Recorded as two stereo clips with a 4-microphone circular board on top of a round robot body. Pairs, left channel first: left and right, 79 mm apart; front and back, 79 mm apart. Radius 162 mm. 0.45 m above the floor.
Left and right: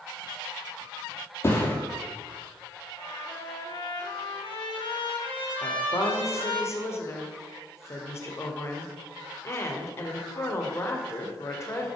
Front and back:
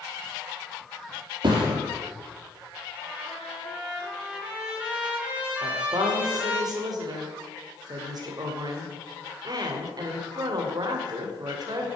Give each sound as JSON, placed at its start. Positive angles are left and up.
{"t": 1.4, "sound": "a thud", "azimuth_deg": 150, "distance_m": 5.0}
{"t": 3.0, "sound": "a trumpet", "azimuth_deg": 100, "distance_m": 5.0}
{"t": 5.6, "sound": "a woman speaking", "azimuth_deg": 145, "distance_m": 2.5}